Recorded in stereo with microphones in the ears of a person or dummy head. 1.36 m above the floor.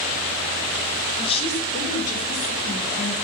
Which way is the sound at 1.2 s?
30° left (ahead or behind).